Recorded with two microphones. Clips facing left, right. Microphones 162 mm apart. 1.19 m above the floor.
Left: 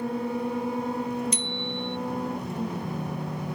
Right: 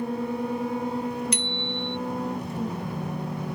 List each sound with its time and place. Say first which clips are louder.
1.3 s a bicycle bell: right 1 dB; 70° right (ahead or behind)